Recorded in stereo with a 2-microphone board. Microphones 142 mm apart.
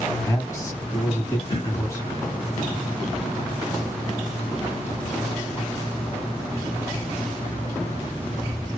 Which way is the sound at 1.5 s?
30° left (ahead or behind).